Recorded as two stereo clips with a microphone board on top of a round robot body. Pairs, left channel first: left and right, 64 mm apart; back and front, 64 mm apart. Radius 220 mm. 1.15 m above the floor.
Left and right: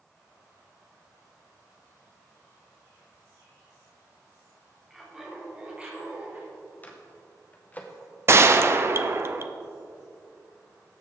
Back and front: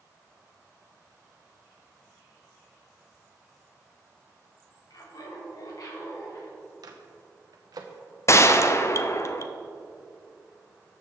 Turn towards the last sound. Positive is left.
turn(degrees=-135)